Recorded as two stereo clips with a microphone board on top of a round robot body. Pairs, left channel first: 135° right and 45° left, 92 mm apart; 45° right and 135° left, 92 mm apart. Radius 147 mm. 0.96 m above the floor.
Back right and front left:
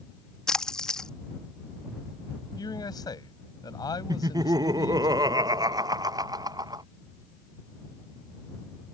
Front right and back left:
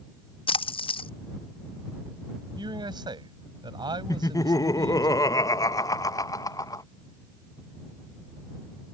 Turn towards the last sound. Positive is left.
turn(degrees=5)